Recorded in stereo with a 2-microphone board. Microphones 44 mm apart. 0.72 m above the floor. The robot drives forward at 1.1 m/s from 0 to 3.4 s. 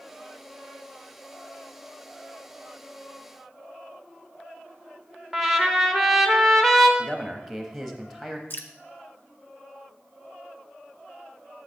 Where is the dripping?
55° left (ahead or behind), 0.6 m.